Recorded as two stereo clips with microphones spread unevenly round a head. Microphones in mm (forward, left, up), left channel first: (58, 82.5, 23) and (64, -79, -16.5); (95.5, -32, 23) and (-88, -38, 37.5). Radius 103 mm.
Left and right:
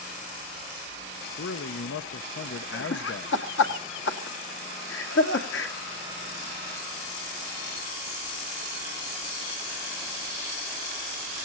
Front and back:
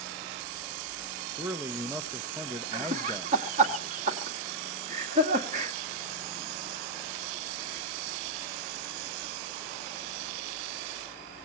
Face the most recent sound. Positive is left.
turn(degrees=130)